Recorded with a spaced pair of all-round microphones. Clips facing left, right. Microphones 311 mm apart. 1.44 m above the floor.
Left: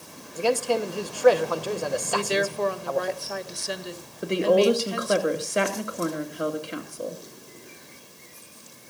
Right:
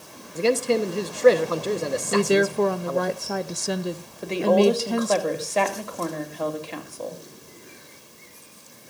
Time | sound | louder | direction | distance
0.3 | a man speaking | right 3 dB | 25° right (ahead or behind) | 1.2 m
2.1 | a woman speaking | right 10 dB | 60° right (ahead or behind) | 0.6 m
4.2 | a woman speaking | right 1 dB | 15° left (ahead or behind) | 2 m